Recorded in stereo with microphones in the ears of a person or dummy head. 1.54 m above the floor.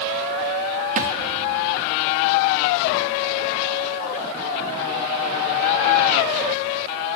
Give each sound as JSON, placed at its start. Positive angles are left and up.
{"t": 1.0, "sound": "a thud", "side_deg": -45, "distance_m": 1.2}